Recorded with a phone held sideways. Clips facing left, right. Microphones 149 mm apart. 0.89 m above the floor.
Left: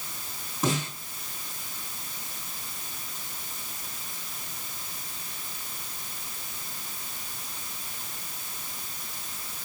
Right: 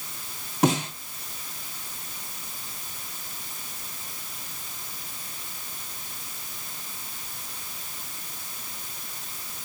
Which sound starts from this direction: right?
A snare drum, at 0.6 s.